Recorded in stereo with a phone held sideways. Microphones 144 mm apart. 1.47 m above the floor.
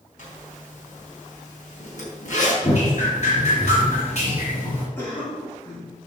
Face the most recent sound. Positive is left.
turn(degrees=15)  # may be behind; listen again after turning